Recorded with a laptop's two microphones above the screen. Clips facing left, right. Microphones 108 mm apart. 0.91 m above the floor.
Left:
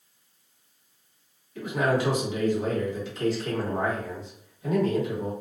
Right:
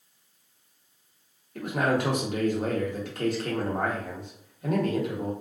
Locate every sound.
1.6 s a man speaking: 55° right (ahead or behind), 1.1 m